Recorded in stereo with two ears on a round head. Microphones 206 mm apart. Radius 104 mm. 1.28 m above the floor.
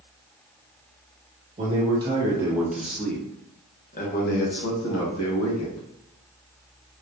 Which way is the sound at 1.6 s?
25° right (ahead or behind).